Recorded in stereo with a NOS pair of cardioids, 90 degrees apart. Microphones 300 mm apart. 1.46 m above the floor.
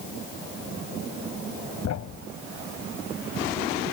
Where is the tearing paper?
I don't hear tearing paper.